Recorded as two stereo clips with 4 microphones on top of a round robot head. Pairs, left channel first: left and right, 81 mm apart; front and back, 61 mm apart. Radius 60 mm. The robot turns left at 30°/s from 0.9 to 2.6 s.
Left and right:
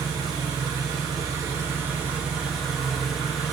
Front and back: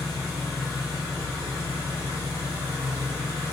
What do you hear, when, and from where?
0.0 s an engine running: 130° right, 0.8 m; by 3.5 s straight behind, 0.8 m